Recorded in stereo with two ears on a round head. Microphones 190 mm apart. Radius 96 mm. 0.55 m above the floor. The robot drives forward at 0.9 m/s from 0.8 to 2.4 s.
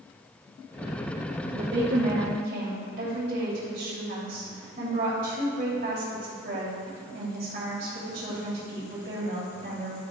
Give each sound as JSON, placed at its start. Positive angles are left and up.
{"t": 1.5, "sound": "a woman speaking", "side_deg": -50, "distance_m": 2.0}